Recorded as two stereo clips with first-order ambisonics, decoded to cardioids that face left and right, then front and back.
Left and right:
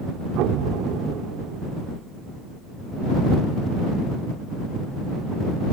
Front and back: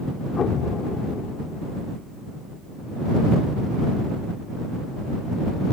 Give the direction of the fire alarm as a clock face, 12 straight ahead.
I don't hear a fire alarm.